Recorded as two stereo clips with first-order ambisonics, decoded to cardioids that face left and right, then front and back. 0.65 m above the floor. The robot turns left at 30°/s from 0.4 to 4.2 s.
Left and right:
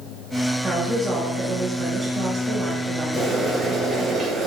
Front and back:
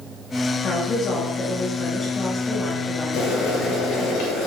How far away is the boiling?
About 1.8 m.